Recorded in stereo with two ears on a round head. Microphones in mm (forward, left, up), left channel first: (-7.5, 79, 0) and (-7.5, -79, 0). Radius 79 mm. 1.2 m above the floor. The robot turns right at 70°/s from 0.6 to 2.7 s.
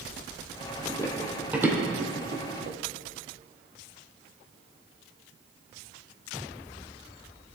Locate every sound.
0.8 s running footsteps: 25° left (ahead or behind), 2 m; by 2.8 s 60° right (ahead or behind), 2.5 m